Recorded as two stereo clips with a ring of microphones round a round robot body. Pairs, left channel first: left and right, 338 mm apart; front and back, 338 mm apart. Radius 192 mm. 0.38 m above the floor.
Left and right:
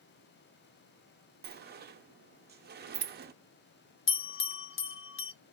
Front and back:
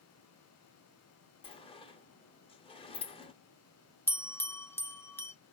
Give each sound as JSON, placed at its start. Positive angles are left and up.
{"t": 1.4, "sound": "a sliding door", "azimuth_deg": -60, "distance_m": 0.6}
{"t": 4.1, "sound": "a bell", "azimuth_deg": 80, "distance_m": 0.7}